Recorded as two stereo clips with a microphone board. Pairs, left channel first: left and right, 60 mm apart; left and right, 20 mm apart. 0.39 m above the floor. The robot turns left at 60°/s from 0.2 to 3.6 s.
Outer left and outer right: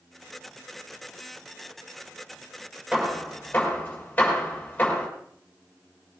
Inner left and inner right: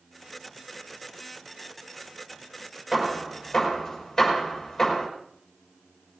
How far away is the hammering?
About 6.5 m.